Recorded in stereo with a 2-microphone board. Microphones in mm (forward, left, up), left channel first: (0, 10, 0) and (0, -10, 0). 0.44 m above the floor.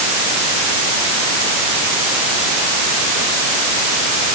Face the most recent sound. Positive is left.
No sound to turn to.